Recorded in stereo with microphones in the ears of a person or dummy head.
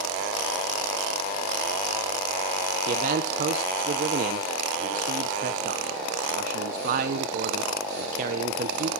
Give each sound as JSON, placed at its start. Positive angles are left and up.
{"t": 2.9, "sound": "a man speaking", "side_deg": -45, "distance_m": 1.0}